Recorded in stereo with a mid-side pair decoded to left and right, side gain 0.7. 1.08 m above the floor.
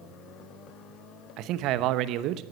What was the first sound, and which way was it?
A man speaking, 55° right.